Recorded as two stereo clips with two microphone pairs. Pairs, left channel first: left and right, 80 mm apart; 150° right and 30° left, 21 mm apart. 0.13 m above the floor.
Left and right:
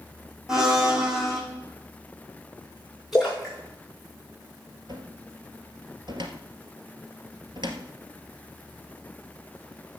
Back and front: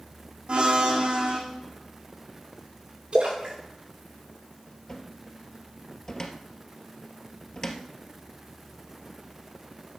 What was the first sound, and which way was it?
A blender, 5° right.